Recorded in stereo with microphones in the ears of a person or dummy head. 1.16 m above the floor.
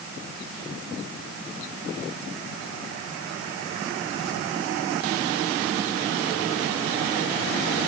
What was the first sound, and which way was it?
Only background noise.